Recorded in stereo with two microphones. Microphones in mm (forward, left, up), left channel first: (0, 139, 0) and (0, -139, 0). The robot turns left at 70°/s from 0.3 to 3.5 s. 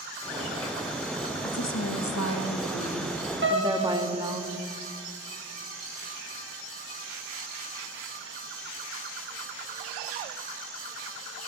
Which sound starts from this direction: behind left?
A woman speaking, at 1.4 s.